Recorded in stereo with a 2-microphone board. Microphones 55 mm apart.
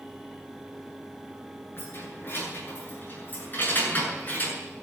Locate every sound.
1.8 s keys jangling: 40° left (ahead or behind), 9 m; by 4.5 s 30° left (ahead or behind), 7 m